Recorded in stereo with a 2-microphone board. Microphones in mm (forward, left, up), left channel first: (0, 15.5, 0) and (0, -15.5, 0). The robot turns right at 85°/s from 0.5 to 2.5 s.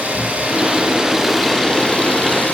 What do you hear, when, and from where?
0.0 s an engine running: 65° right, 10 m; by 2.5 s 105° left, 10 m